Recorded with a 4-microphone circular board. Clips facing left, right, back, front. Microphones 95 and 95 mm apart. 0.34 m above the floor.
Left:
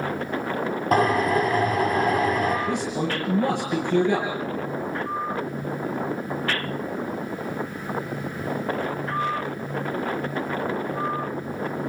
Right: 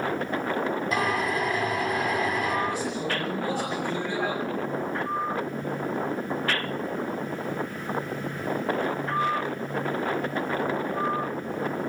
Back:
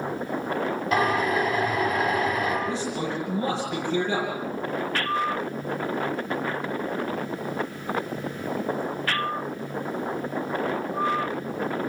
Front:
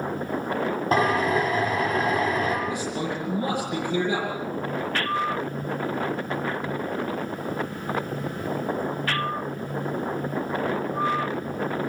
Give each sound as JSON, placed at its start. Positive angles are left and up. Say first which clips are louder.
{"t": 0.9, "sound": "a drill", "louder": "left 10 dB, front 1 dB", "azimuth_deg": 50, "distance_m": 8.0}
{"t": 2.7, "sound": "a man speaking", "louder": "left 3 dB, even", "azimuth_deg": 75, "distance_m": 9.5}